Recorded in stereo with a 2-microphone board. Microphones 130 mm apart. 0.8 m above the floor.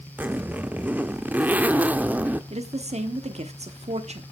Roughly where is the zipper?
Centre.